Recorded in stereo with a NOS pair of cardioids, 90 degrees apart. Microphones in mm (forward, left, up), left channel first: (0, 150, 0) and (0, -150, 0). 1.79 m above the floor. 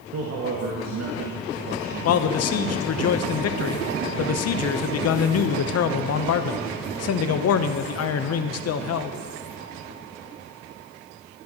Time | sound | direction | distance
0.1 | a man speaking | 55° right | 2 m
2.0 | a man speaking | 60° left | 0.9 m